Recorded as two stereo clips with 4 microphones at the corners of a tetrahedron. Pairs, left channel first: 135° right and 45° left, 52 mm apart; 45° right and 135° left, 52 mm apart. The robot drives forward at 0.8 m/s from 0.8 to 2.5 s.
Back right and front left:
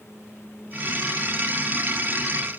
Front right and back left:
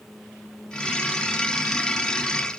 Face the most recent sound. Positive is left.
No sound to turn to.